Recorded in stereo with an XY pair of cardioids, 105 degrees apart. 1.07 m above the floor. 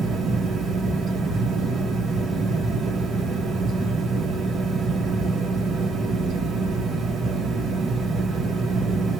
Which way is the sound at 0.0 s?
65° right.